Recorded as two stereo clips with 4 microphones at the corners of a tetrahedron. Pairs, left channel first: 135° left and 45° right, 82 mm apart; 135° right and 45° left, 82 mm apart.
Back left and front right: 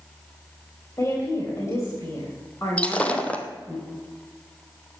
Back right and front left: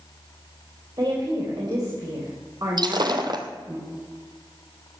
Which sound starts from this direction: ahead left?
Breaking glass, at 2.8 s.